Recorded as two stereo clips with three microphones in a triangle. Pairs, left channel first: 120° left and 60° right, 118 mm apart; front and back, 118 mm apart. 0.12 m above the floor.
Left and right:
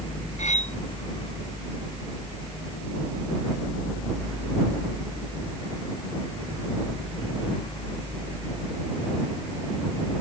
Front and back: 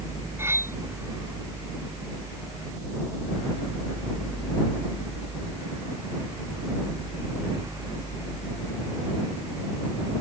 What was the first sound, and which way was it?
Cutlery clinking, 110° left.